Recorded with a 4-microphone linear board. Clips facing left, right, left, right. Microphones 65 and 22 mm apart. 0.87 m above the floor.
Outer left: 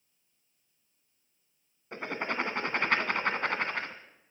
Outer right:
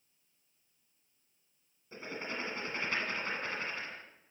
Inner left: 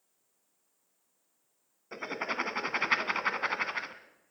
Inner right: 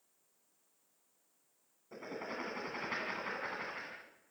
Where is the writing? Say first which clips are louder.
Outer left 7 dB, inner left 9 dB; 70° left (ahead or behind), 2.0 m.